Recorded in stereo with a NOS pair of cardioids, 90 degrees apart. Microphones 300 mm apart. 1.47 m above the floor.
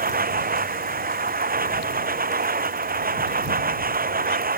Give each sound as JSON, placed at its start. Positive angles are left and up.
{"t": 0.0, "sound": "a machine running", "azimuth_deg": -30}